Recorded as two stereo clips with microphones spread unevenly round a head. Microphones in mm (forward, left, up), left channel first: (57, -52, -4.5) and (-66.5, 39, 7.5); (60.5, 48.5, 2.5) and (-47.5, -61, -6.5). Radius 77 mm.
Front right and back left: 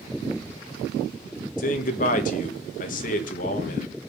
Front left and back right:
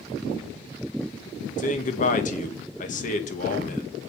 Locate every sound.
1.6 s a man speaking: 5° left, 2.5 m